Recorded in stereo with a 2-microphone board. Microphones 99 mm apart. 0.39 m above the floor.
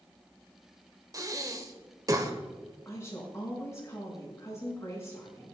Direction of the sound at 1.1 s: 35° right (ahead or behind).